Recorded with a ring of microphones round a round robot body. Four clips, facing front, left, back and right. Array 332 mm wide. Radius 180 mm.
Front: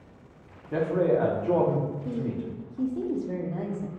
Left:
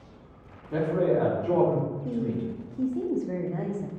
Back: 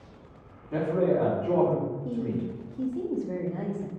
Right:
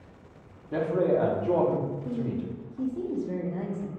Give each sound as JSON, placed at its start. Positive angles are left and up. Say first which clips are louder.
{"t": 0.7, "sound": "a man speaking", "louder": "even, front 1 dB", "azimuth_deg": -30, "distance_m": 0.9}
{"t": 2.0, "sound": "a woman speaking", "louder": "left 2 dB, back 1 dB", "azimuth_deg": 60, "distance_m": 0.7}